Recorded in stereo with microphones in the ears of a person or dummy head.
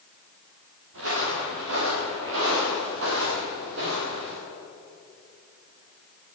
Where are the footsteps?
75° right (ahead or behind), 8 m; by 4.4 s 70° right (ahead or behind), 9.5 m.